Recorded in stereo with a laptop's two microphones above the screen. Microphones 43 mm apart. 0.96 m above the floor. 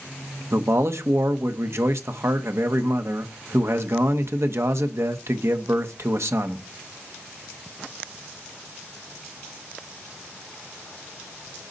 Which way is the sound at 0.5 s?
65° right (ahead or behind).